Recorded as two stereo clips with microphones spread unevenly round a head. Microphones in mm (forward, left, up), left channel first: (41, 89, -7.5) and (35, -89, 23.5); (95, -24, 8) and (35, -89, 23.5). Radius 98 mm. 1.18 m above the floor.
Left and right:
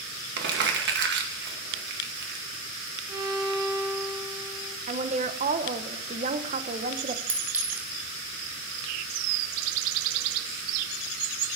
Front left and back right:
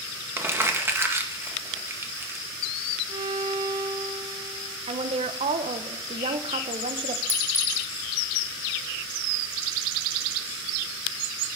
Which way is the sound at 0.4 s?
70° right.